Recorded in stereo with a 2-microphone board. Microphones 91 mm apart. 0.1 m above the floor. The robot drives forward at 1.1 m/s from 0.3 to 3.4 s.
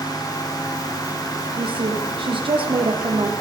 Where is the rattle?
No rattle in this recording.